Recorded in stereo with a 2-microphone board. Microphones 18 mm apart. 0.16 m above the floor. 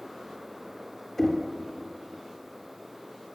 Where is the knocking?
25° left (ahead or behind), 2.5 m.